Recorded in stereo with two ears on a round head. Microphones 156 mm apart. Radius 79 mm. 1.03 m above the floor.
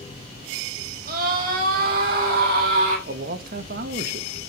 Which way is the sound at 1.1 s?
50° right (ahead or behind).